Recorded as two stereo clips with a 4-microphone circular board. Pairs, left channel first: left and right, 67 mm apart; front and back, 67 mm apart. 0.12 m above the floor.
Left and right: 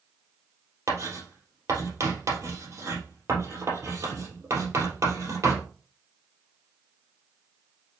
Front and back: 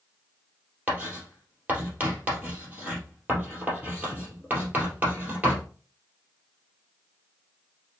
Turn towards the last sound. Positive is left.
turn(degrees=-110)